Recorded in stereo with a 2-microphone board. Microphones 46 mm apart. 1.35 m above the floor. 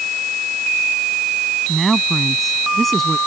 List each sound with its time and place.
1.7 s a woman speaking: centre (ahead or behind); by 3.2 s 5° left (ahead or behind)